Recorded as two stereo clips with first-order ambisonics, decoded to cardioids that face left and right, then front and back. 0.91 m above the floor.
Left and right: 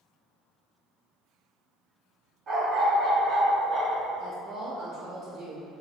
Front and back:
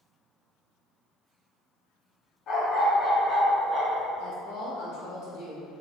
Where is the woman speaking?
30° right, 1.0 m.